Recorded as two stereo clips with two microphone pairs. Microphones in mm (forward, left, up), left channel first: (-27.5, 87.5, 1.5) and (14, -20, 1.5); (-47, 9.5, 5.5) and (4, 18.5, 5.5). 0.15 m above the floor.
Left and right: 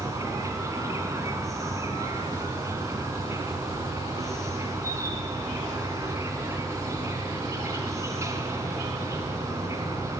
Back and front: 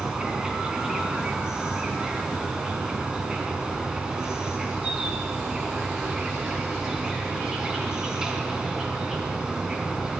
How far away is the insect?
About 2.5 m.